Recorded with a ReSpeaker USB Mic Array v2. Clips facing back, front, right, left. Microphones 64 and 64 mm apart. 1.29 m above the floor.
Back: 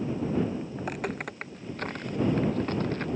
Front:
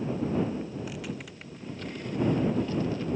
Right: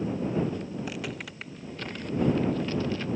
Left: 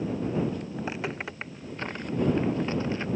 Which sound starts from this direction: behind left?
Footsteps, at 0.8 s.